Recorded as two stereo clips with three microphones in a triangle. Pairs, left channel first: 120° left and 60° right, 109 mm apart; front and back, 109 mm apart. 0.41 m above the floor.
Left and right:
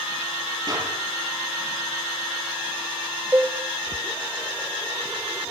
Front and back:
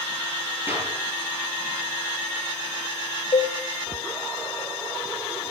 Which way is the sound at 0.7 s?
110° right.